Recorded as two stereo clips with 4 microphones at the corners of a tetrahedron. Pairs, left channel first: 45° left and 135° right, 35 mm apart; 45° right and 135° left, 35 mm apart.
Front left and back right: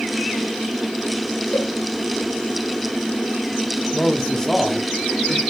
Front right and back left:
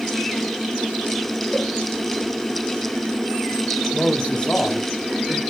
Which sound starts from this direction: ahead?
A man speaking, at 3.9 s.